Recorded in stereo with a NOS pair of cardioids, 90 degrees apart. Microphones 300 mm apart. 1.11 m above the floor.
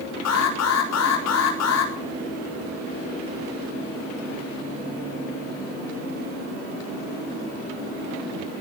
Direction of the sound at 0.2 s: 65° left.